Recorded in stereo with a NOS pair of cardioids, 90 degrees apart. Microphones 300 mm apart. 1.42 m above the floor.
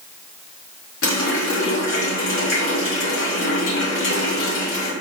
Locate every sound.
1.0 s a running tap: 45° left, 1.9 m